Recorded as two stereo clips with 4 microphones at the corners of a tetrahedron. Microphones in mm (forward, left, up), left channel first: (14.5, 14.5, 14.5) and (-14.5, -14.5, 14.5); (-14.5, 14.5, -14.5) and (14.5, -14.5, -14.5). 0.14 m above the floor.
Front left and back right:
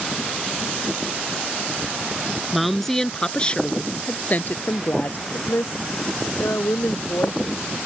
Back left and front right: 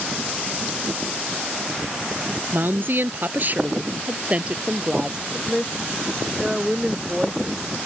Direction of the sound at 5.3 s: 35° left.